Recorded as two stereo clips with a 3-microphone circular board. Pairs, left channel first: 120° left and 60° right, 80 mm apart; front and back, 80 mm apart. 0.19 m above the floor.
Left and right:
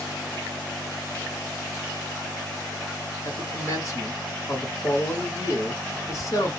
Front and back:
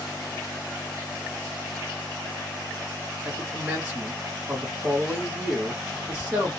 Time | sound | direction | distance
3.2 | a man speaking | 125° left | 1.5 m